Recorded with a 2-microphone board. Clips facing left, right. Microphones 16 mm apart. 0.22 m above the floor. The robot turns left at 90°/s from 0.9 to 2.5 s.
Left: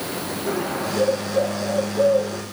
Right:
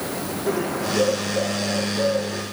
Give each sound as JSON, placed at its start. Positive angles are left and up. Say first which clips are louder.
{"t": 0.5, "sound": "a bird", "louder": "right 1 dB", "azimuth_deg": -175, "distance_m": 5.0}